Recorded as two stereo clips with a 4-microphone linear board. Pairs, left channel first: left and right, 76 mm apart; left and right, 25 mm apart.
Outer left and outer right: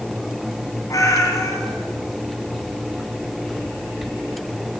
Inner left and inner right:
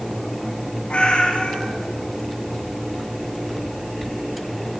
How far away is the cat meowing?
About 3 m.